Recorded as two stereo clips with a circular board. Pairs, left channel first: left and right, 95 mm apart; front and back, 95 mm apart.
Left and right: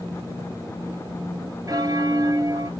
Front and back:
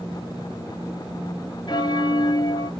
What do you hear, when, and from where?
1.7 s a bell: 40° right, 0.7 m